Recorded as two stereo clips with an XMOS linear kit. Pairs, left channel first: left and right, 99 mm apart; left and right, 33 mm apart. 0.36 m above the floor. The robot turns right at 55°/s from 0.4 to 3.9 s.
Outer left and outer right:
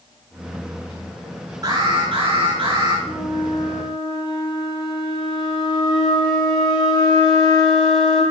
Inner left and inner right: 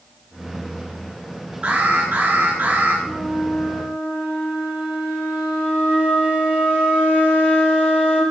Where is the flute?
100° right, 7 m; by 8.2 s 50° right, 7 m.